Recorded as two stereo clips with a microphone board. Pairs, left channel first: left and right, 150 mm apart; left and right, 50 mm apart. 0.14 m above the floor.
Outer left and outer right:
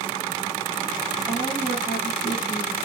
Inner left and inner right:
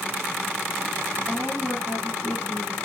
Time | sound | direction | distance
1.3 | a woman speaking | 25° left (ahead or behind) | 3.5 m